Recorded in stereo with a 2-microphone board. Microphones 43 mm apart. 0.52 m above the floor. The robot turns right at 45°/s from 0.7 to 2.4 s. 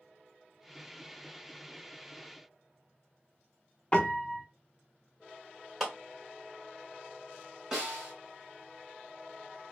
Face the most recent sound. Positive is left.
turn(degrees=-10)  # may be behind; listen again after turning